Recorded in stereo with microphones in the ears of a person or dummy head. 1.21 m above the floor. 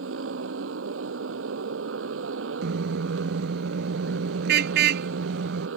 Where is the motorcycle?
75° right (ahead or behind).